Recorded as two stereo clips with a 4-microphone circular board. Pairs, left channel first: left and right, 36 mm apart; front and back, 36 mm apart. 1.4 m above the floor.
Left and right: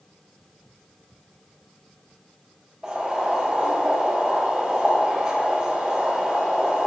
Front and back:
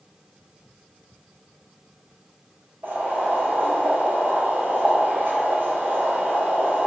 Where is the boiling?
160° right, 5 m.